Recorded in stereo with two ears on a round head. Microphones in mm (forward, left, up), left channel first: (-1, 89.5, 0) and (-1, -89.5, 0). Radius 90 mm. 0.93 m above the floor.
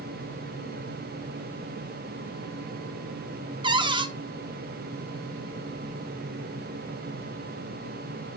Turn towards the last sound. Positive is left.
turn(degrees=-25)  # may be behind; listen again after turning